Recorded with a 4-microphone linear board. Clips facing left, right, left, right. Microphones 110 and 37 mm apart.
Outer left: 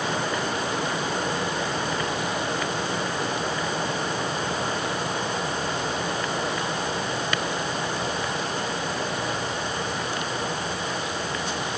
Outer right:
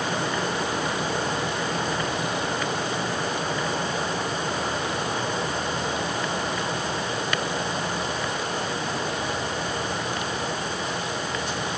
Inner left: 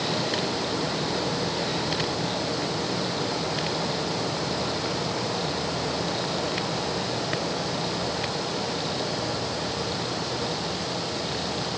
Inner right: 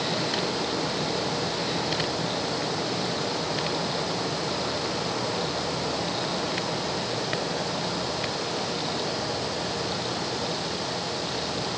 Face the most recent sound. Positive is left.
No sound to turn to.